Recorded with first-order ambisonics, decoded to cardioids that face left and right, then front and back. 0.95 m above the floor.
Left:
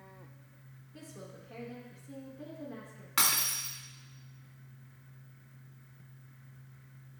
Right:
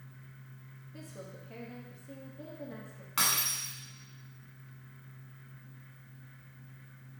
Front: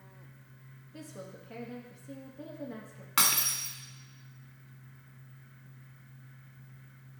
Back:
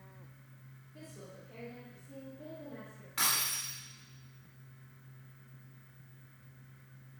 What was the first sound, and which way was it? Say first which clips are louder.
A woman speaking: right 1 dB, front 5 dB; 25° right.